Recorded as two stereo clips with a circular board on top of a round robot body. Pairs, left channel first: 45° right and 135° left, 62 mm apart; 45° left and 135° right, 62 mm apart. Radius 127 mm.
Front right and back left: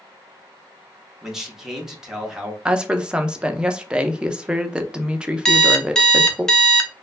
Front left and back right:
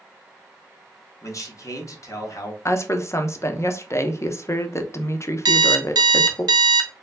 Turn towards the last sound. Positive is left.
turn(degrees=-125)